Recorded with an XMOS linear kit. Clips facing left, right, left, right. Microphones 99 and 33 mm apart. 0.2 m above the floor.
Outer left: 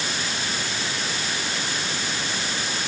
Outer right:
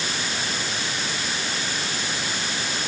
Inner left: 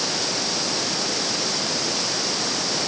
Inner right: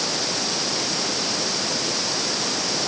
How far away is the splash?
No splash in this recording.